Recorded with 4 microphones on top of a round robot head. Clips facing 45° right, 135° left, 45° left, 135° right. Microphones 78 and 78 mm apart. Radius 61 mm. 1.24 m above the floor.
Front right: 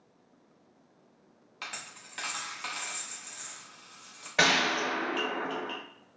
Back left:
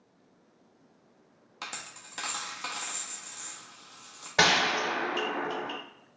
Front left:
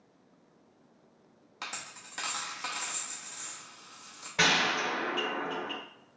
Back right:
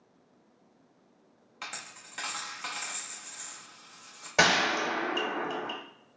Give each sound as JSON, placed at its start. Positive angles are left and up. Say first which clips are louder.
{"t": 1.6, "sound": "a dropped coin", "louder": "back left 1 dB, even", "azimuth_deg": 105, "distance_m": 0.6}
{"t": 4.4, "sound": "a gunshot", "louder": "back left 1 dB, back right 3 dB", "azimuth_deg": -155, "distance_m": 1.7}